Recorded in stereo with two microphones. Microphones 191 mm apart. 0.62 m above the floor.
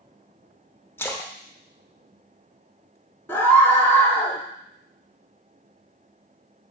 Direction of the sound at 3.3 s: 10° left (ahead or behind).